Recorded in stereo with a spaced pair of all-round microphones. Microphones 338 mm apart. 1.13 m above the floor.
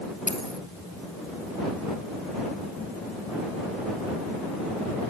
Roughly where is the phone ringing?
No phone ringing in this recording.